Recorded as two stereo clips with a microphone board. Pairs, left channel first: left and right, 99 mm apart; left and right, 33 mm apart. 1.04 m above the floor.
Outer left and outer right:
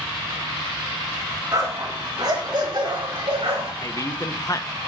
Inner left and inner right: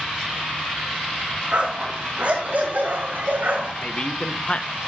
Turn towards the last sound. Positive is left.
turn(degrees=35)  # may be behind; listen again after turning